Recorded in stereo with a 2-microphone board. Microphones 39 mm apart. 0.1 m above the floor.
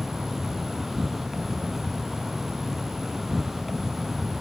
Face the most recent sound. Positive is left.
turn(degrees=-5)  # may be behind; listen again after turning